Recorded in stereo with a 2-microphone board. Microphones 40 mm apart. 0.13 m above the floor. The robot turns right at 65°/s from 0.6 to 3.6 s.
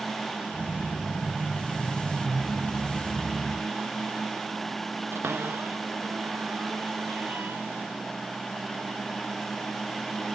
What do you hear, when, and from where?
5.1 s a cupboard door: 85° right